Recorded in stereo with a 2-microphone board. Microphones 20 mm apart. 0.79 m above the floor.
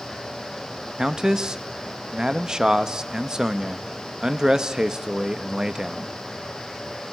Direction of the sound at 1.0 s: 30° right (ahead or behind).